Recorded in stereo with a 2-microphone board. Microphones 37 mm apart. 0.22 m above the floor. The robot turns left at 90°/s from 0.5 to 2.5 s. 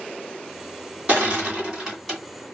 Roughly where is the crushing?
Right.